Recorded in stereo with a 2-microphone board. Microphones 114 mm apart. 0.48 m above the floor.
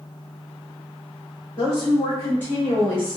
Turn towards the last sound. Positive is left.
turn(degrees=5)  # may be behind; listen again after turning